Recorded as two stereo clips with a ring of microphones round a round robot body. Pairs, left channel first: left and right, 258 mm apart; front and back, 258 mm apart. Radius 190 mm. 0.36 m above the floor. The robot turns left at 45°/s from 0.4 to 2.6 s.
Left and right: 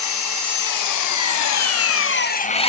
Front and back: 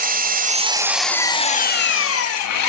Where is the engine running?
120° left, 0.7 m; by 2.7 s 20° left, 0.7 m.